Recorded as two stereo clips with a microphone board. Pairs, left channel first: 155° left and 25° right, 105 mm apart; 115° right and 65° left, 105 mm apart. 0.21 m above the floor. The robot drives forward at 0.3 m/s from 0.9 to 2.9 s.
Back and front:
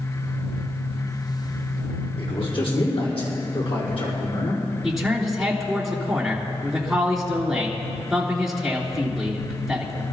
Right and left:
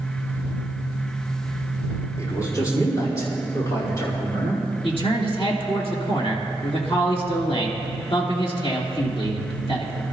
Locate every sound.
2.2 s a man speaking: 170° right, 6 m
4.8 s a man speaking: 110° right, 3 m